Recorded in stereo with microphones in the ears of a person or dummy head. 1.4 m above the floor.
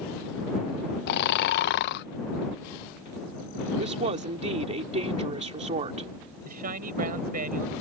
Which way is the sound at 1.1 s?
60° left (ahead or behind).